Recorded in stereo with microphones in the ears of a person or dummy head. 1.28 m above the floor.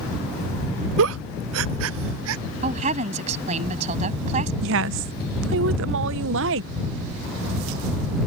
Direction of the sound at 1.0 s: 75° right (ahead or behind).